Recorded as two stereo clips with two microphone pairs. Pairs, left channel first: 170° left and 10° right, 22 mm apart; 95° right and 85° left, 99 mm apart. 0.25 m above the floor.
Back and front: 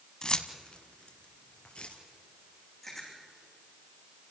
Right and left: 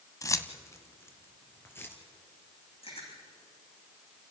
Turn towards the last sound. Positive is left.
turn(degrees=-105)